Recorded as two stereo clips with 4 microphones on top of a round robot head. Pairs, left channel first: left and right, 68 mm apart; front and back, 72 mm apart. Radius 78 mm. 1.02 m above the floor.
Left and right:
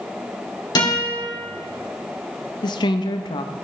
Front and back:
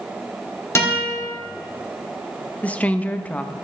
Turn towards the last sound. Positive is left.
turn(degrees=70)